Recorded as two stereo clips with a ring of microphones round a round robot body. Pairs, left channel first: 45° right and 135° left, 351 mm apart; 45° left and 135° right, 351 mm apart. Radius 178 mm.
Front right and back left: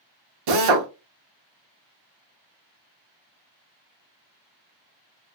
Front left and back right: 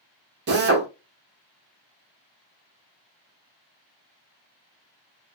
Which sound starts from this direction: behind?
A drill, at 0.5 s.